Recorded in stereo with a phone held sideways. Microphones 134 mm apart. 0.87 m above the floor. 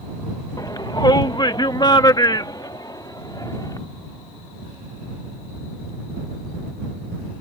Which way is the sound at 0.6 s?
30° left (ahead or behind).